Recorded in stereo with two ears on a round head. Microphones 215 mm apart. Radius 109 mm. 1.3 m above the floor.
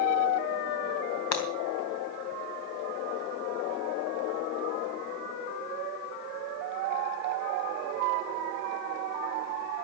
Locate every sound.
1.3 s breaking glass: 75° left (ahead or behind), 3 m